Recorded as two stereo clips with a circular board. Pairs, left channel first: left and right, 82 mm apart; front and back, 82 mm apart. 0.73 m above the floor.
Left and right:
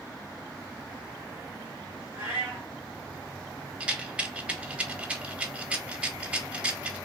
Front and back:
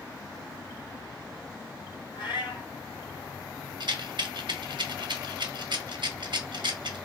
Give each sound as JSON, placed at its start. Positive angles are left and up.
{"t": 2.1, "sound": "a cat meowing", "azimuth_deg": -25, "distance_m": 2.5}
{"t": 3.8, "sound": "a rattle", "azimuth_deg": -165, "distance_m": 0.6}